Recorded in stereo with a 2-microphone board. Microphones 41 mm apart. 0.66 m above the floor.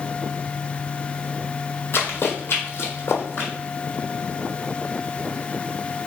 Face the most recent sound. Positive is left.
turn(degrees=60)  # may be behind; listen again after turning